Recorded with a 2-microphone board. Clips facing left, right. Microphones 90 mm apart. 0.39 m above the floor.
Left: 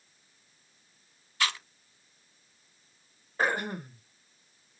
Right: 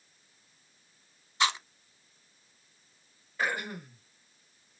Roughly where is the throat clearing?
Left.